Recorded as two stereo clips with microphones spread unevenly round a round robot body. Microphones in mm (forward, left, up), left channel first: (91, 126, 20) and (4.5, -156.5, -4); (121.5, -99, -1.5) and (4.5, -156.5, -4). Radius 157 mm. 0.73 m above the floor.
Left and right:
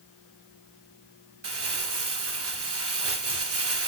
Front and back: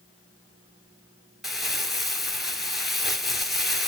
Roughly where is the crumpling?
Ahead right.